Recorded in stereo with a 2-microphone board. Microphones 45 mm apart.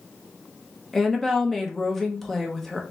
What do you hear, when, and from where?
0.9 s a woman speaking: 5° left (ahead or behind), 1.2 m